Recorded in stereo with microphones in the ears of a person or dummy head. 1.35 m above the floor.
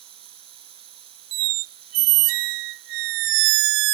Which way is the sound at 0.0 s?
30° right (ahead or behind).